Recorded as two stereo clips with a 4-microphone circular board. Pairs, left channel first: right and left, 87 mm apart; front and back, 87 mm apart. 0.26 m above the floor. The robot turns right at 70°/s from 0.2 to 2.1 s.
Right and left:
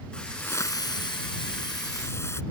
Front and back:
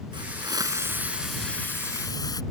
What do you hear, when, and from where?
0.1 s a hiss: 170° right; by 2.4 s 35° right